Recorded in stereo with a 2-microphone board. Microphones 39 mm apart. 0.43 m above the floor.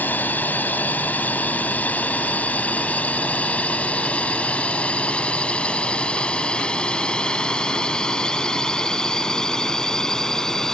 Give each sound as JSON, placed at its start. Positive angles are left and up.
{"t": 0.0, "sound": "a drone", "side_deg": 50}